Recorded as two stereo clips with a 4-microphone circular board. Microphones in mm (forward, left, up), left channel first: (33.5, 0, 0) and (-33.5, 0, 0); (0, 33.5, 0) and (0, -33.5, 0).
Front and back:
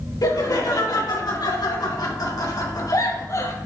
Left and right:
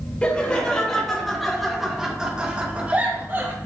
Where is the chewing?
I don't hear chewing.